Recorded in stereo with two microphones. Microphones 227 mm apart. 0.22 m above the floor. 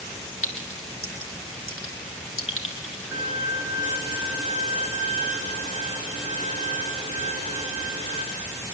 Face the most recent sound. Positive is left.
turn(degrees=65)  # may be behind; listen again after turning